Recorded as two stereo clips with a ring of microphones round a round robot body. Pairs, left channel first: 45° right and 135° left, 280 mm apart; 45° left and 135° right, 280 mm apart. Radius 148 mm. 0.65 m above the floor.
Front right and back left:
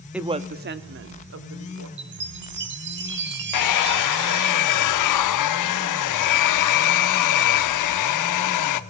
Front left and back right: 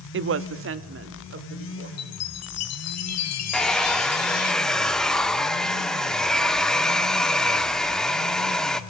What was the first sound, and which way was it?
A woman speaking, 140° right.